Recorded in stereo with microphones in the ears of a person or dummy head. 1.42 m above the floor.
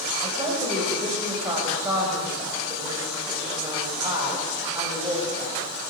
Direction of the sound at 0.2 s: 25° right (ahead or behind).